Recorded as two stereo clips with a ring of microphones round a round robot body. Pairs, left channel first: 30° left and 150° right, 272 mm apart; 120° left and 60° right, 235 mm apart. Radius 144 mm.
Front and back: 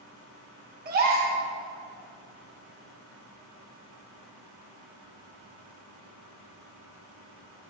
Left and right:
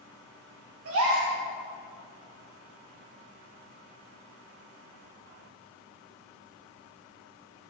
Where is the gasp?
95° right, 1.9 m.